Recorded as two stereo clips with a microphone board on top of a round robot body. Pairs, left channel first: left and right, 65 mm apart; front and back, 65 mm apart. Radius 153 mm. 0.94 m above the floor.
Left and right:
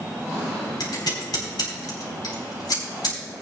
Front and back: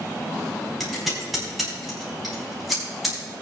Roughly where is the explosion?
I don't hear an explosion.